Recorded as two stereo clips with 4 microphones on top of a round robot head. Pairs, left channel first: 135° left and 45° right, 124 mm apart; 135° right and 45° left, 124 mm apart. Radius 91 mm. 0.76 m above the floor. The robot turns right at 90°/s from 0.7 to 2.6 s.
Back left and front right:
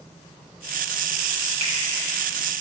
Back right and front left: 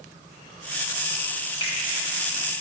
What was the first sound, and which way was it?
A finger snap, 85° right.